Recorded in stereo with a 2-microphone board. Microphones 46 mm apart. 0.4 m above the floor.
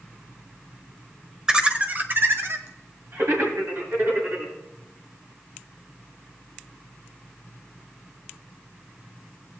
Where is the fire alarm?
I don't hear a fire alarm.